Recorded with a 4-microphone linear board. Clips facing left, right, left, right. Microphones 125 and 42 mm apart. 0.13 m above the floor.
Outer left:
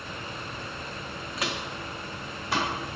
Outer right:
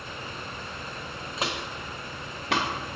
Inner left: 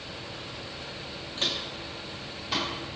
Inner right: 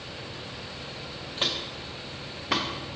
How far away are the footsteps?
About 0.7 m.